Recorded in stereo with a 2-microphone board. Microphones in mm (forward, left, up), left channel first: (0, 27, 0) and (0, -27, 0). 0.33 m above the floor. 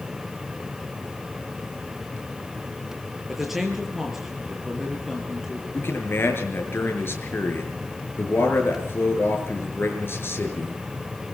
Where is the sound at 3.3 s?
5° right (ahead or behind), 7 m.